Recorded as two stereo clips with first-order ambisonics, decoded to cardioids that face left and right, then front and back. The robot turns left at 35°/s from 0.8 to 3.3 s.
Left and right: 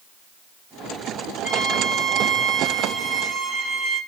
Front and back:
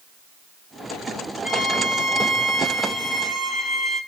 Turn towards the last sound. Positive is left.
turn(degrees=-45)